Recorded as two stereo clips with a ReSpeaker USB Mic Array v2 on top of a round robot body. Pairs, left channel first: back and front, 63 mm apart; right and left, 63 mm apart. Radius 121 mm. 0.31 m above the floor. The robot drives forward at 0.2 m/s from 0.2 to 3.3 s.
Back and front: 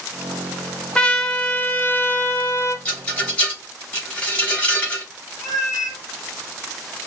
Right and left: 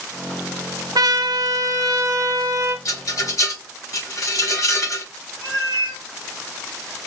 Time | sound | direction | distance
0.9 | a trumpet | 105° left | 0.6 m
2.9 | a rattle | 120° right | 3 m
5.4 | a cat meowing | 140° right | 1.9 m